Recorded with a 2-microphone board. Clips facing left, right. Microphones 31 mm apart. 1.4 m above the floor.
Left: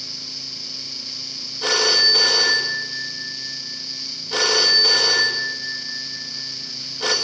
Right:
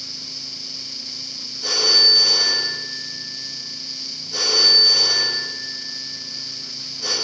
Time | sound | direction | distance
1.6 | a phone ringing | 70° left (ahead or behind) | 1.4 m